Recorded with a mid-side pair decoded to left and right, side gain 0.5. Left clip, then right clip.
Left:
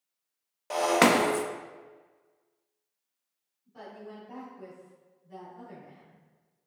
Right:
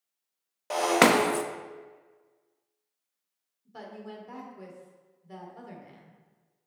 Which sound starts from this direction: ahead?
Breaking glass, at 0.7 s.